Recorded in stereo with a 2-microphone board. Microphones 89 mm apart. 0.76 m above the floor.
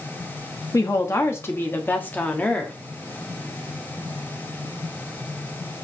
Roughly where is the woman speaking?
Left.